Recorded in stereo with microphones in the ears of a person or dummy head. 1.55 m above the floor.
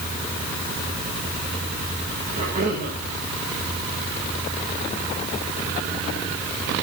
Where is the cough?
40° right (ahead or behind), 6 m.